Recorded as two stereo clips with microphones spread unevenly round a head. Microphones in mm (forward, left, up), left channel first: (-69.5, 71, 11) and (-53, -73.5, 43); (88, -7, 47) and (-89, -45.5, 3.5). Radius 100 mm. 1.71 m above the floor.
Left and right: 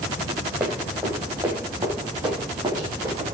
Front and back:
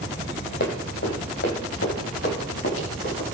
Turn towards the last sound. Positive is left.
turn(degrees=-15)